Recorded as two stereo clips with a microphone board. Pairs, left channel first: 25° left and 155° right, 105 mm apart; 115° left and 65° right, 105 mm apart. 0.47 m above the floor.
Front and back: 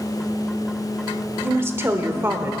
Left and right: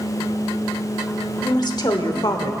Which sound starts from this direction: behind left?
A woman speaking, at 1.4 s.